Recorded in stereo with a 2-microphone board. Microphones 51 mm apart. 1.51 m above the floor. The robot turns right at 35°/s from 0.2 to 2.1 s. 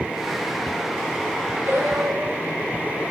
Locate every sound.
1.7 s singing: 70° right (ahead or behind), 3.5 m; by 2.5 s 60° right (ahead or behind), 3.5 m